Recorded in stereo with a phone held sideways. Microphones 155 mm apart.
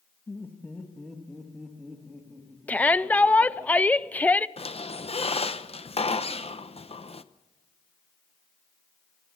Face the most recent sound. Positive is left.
turn(degrees=40)  # may be behind; listen again after turning